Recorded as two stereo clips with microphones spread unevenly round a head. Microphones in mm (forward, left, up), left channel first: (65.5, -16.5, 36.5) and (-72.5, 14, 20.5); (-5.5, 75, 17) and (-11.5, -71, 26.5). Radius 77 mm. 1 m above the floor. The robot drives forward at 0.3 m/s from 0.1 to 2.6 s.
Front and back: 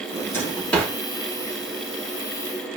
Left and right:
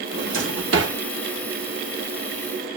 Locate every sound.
0.1 s a drawer: 85° right, 1.0 m; by 1.0 s 100° right, 1.0 m